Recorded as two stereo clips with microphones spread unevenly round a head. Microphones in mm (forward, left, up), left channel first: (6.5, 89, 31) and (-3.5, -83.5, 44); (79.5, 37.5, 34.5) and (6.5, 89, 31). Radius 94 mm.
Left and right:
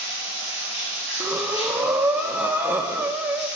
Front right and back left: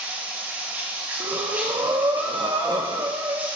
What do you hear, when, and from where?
0.0 s running water: 75° left, 2.5 m
1.2 s breathing: 175° right, 0.6 m